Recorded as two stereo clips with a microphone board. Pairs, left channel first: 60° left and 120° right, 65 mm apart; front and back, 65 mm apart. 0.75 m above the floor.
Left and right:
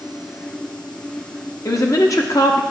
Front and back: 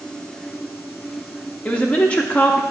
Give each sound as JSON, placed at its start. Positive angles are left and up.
{"t": 1.6, "sound": "a woman speaking", "azimuth_deg": 65, "distance_m": 0.8}